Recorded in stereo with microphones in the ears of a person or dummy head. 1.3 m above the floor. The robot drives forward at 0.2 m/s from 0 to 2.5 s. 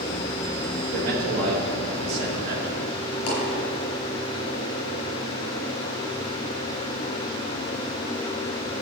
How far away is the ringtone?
I don't hear a ringtone.